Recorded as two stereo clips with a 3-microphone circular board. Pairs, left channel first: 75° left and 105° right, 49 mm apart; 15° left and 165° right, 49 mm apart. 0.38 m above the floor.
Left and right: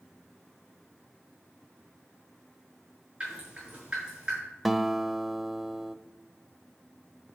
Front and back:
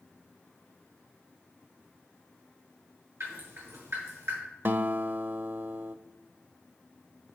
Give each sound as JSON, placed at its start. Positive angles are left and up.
{"t": 3.2, "sound": "dripping", "azimuth_deg": -175, "distance_m": 6.5}
{"t": 4.7, "sound": "a guitar", "azimuth_deg": 170, "distance_m": 0.6}